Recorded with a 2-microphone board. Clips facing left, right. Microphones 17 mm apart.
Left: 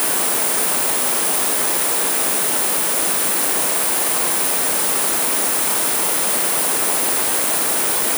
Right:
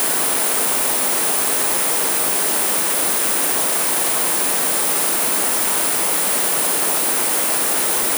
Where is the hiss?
No hiss in this recording.